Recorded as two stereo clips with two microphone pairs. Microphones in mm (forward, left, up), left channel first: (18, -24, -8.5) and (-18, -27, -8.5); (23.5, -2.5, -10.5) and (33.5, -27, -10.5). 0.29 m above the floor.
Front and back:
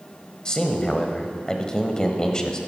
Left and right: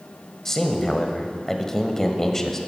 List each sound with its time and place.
0.5 s a man speaking: 50° left, 1.4 m